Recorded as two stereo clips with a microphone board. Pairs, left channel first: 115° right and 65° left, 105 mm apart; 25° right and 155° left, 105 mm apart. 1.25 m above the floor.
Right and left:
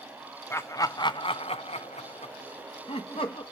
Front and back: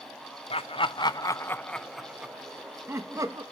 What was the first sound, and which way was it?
Laughter, 45° right.